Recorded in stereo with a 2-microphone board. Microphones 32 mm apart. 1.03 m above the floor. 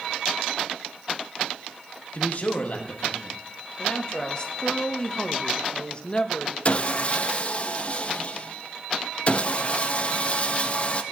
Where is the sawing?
40° left (ahead or behind), 0.6 m.